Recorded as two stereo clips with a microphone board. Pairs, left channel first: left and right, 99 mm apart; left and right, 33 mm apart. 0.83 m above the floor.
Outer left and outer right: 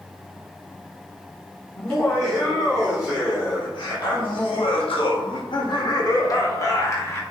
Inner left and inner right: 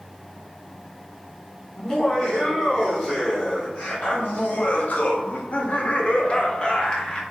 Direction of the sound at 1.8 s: 25° left (ahead or behind).